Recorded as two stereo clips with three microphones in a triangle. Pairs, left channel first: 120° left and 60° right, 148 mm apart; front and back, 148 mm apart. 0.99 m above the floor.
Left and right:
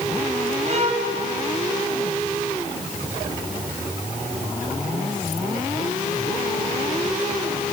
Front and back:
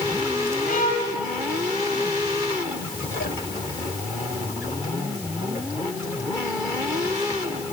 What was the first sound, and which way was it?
A violin, 20° right.